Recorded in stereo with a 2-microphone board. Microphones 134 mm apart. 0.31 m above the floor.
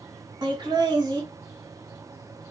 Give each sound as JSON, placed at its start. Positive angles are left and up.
{"t": 0.4, "sound": "laughter", "side_deg": -35, "distance_m": 1.9}